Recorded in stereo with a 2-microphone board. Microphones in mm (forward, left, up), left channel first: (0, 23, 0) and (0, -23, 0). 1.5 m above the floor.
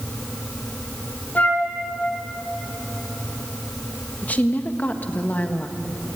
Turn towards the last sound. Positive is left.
turn(degrees=35)  # may be behind; listen again after turning